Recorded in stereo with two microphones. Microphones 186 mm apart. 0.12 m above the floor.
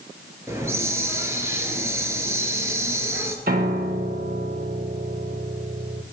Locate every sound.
0.5 s a hiss: 15° right (ahead or behind), 0.8 m
3.5 s a piano: 60° right (ahead or behind), 0.7 m